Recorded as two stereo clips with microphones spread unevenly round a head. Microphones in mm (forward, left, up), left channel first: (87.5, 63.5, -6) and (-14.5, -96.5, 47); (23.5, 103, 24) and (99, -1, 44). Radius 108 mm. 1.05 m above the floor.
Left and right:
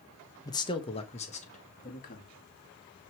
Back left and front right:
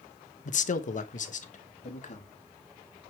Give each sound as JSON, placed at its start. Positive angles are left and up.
{"t": 0.5, "sound": "a man speaking", "azimuth_deg": 125, "distance_m": 0.9}